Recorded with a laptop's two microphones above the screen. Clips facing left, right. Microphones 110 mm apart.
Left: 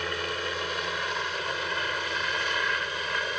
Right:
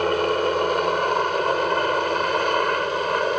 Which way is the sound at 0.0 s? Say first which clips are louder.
Right 12 dB; 50° right (ahead or behind).